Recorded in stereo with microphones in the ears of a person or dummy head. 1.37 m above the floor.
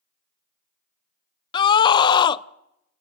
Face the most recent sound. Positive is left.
turn(degrees=25)  # may be behind; listen again after turning